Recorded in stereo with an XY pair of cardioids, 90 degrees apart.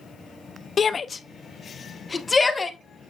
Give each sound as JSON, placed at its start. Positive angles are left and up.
{"t": 0.8, "sound": "a shout", "azimuth_deg": 45, "distance_m": 0.7}